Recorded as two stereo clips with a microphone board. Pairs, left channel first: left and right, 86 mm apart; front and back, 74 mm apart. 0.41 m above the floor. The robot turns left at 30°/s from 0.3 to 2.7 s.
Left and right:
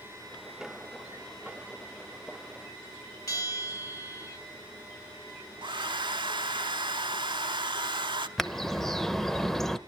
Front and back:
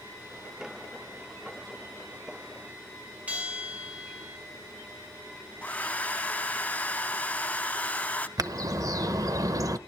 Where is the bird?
175° left, 0.8 m.